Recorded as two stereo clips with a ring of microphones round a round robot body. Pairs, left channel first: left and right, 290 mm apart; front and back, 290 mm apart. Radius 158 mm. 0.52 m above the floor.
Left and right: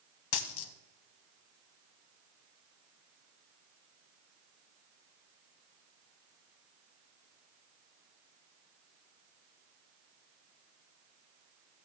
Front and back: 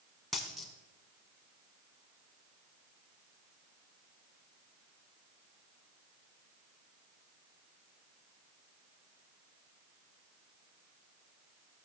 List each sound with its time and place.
0.3 s a dropped coin: 90° left, 0.8 m